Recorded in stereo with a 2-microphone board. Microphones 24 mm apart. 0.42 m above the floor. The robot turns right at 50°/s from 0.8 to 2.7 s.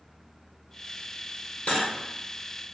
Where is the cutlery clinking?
50° left (ahead or behind), 0.7 m.